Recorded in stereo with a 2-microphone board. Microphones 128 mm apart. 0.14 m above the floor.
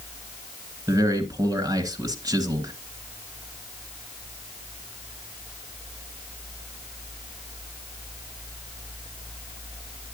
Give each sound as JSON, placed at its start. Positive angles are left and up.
{"t": 0.9, "sound": "a man speaking", "side_deg": -25, "distance_m": 1.5}